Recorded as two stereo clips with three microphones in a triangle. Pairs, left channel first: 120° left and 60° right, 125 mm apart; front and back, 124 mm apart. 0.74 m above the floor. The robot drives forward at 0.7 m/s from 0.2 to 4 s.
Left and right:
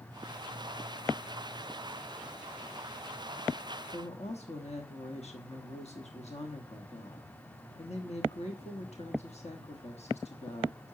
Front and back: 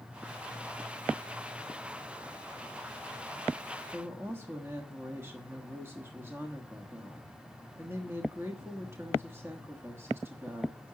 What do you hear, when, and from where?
3.9 s a woman speaking: 110° left, 1.2 m